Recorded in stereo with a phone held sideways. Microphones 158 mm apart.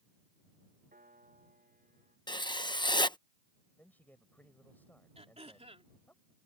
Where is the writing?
30° left (ahead or behind).